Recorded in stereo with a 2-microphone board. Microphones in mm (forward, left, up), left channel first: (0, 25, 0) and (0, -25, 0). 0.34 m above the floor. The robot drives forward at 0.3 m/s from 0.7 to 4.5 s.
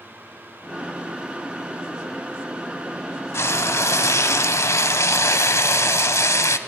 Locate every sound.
3.3 s frying: 60° left (ahead or behind), 0.6 m; by 6.6 s 75° left (ahead or behind), 0.6 m